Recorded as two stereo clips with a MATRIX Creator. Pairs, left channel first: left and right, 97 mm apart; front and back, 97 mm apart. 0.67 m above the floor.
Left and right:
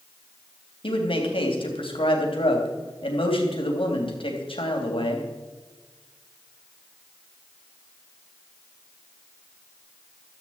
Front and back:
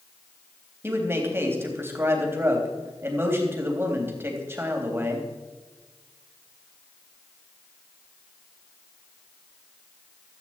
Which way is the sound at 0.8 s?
115° left.